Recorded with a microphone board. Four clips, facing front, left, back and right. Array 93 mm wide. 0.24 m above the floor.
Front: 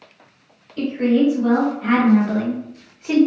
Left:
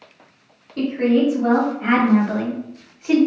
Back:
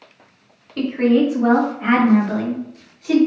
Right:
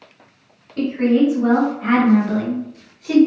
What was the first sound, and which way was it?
A woman speaking, 175° left.